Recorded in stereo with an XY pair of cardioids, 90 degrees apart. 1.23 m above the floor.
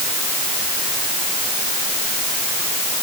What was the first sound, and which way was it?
Only background noise.